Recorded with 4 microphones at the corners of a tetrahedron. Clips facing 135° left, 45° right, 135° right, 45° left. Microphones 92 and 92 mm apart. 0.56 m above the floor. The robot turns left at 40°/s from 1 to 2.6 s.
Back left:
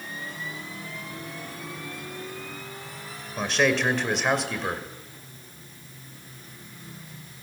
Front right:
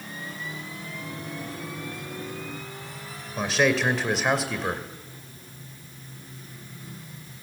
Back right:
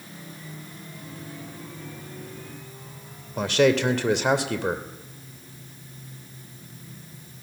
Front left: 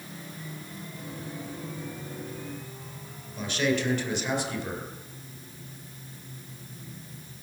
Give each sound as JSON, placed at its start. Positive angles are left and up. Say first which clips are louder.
{"t": 3.4, "sound": "a man speaking", "louder": "front right 1 dB, back right 7 dB", "azimuth_deg": -135, "distance_m": 2.0}